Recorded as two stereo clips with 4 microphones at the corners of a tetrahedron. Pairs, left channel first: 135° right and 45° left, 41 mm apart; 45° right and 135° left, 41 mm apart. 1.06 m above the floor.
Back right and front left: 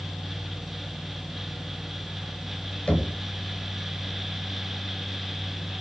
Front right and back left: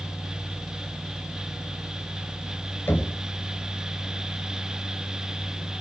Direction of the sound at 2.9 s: 70° right.